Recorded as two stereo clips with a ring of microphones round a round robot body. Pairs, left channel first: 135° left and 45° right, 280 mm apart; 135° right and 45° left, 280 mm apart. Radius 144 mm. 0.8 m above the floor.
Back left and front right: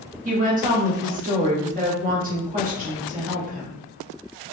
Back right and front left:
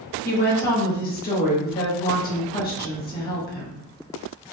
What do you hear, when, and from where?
0.2 s a woman speaking: 95° right, 1.0 m